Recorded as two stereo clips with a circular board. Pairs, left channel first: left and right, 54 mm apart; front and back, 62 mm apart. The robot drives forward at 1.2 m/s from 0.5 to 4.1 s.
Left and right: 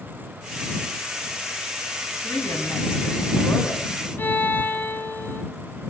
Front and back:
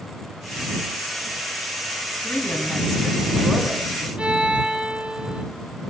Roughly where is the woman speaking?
Ahead left.